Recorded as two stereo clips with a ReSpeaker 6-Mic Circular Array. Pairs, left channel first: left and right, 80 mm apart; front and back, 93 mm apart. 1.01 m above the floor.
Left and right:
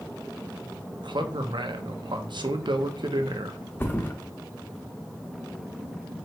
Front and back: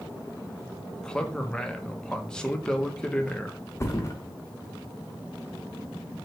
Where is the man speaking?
80° right, 0.6 m.